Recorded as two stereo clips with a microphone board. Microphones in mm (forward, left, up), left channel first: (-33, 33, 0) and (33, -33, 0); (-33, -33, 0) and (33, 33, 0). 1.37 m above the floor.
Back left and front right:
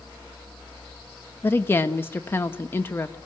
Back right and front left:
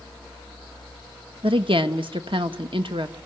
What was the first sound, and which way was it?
A woman speaking, 70° left.